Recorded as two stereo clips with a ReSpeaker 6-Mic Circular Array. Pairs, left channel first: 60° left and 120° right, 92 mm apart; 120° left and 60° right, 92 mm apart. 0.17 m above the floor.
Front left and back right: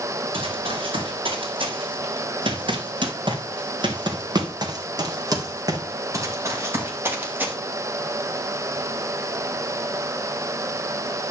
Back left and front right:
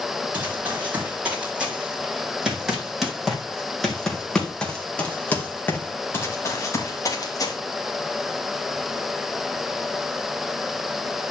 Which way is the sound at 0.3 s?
130° right.